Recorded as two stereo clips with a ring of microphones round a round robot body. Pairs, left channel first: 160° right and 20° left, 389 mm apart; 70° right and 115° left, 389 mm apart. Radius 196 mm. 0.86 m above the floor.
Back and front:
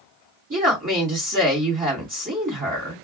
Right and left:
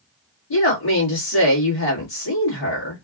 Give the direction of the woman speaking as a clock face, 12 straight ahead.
1 o'clock.